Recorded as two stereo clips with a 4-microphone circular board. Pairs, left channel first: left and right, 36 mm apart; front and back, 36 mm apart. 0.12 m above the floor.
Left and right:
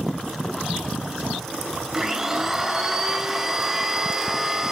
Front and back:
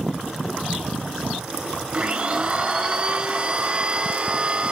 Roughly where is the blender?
Behind right.